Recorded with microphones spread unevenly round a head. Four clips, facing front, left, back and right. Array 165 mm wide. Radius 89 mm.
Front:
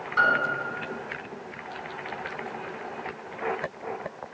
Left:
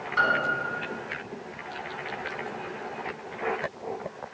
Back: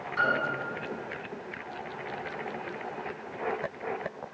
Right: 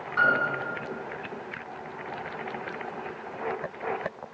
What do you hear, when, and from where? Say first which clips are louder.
0.2 s a piano: right 1 dB, front 5 dB; 35° left, 4.5 m